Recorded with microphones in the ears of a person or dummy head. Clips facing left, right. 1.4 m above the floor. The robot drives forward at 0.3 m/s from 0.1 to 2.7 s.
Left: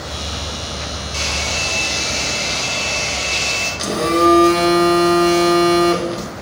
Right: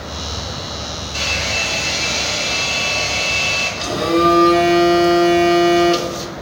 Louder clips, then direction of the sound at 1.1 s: Right 1 dB; 75° left (ahead or behind).